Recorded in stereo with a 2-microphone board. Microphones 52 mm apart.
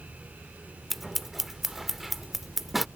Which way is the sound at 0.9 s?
5° right (ahead or behind).